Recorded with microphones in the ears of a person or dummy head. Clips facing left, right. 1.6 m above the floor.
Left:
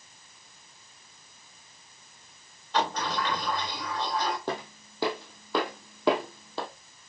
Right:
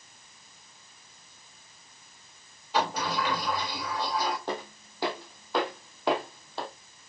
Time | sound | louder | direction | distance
2.7 | a sliding door | even | 5° right (ahead or behind) | 2.5 m
4.5 | footsteps | left 1 dB | 55° left (ahead or behind) | 3.5 m